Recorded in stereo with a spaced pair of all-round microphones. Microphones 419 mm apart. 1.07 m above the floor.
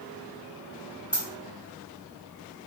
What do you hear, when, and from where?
1.1 s a dropped coin: 70° left (ahead or behind), 1.5 m